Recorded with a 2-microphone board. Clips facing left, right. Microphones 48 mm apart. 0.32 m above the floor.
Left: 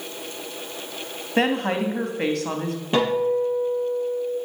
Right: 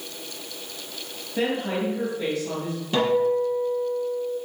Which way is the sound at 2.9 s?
25° left (ahead or behind).